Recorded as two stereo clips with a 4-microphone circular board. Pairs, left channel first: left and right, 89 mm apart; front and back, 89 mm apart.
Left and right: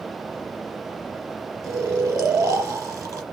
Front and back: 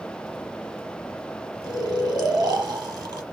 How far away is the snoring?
About 0.9 m.